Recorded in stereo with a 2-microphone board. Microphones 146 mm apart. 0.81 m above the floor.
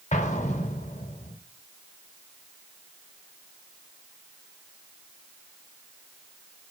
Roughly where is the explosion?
Left.